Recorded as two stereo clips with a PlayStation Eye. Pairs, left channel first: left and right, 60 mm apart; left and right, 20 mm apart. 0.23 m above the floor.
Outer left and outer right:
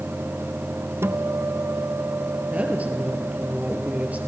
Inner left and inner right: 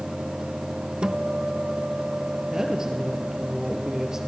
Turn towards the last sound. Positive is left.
turn(degrees=-25)  # may be behind; listen again after turning